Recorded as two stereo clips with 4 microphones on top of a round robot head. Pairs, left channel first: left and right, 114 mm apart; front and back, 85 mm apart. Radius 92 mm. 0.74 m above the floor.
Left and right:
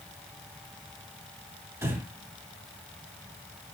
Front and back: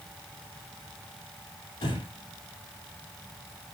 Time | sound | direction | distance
1.8 | breathing | 25° right | 6.5 m